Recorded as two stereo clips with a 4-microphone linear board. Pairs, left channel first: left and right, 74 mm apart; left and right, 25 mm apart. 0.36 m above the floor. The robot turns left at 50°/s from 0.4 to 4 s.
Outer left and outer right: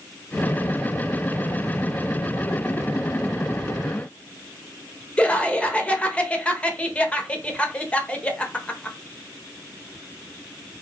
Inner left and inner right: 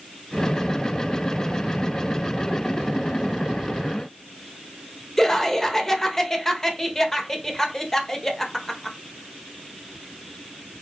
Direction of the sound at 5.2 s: 15° left (ahead or behind).